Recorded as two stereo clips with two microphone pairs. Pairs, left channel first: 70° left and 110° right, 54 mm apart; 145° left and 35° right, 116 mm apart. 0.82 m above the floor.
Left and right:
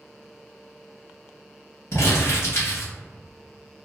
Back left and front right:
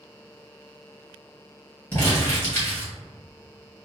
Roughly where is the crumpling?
Left.